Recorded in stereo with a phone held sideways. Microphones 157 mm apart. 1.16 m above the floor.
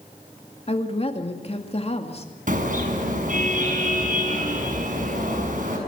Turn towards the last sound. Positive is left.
turn(degrees=-55)  # may be behind; listen again after turning